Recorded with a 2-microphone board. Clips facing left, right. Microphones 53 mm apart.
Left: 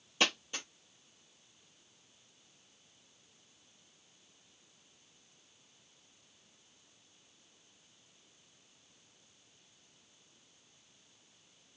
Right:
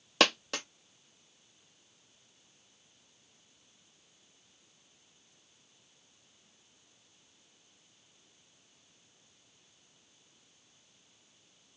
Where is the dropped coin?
80° right, 0.7 m.